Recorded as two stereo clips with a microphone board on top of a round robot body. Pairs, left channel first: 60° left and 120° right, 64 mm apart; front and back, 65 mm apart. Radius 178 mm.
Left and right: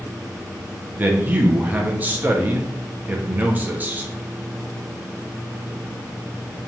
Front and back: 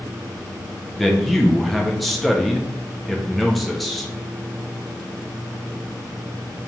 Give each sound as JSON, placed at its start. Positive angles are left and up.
{"t": 1.0, "sound": "a man speaking", "azimuth_deg": -90, "distance_m": 0.6}